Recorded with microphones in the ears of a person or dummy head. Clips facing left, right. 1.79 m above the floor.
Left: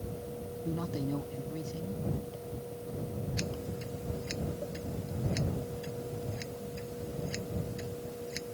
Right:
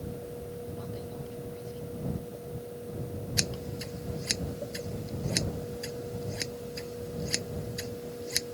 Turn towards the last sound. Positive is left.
turn(degrees=-75)  # may be behind; listen again after turning